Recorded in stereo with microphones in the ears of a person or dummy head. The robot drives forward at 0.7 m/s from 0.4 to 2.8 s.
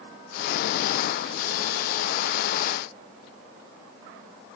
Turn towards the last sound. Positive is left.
No sound to turn to.